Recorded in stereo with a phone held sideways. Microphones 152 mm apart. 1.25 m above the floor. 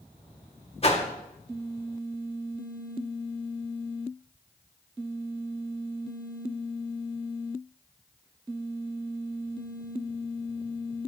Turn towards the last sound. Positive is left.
turn(degrees=40)  # may be behind; listen again after turning